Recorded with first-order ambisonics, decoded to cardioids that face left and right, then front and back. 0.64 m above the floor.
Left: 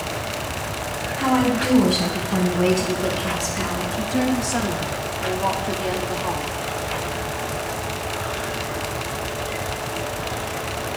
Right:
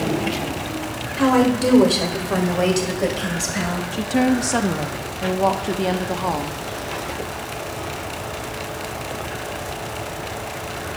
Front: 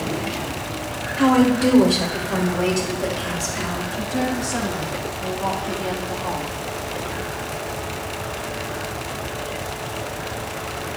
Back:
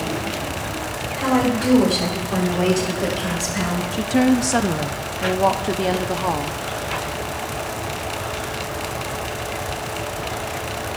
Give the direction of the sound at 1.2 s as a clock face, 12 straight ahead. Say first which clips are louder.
Right 3 dB, front 3 dB; 2 o'clock.